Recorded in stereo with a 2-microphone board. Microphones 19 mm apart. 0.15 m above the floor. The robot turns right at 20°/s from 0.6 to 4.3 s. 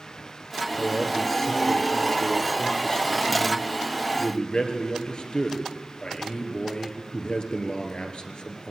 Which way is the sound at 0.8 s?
5° right (ahead or behind).